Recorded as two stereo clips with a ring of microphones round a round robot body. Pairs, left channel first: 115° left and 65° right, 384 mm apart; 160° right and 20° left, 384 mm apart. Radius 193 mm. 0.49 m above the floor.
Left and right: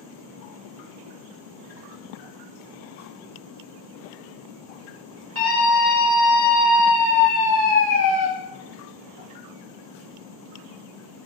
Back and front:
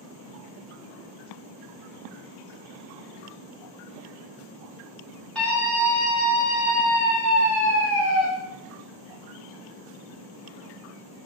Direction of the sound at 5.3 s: 70° right.